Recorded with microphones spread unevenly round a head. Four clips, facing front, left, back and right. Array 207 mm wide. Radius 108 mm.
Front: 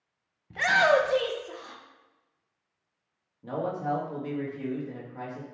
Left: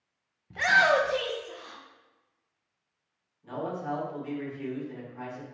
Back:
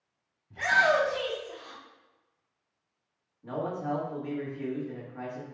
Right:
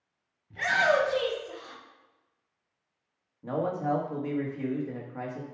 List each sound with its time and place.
0.5 s a shout: 35° left, 1.4 m; by 1.8 s 10° right, 1.9 m
3.4 s a man speaking: 65° right, 2 m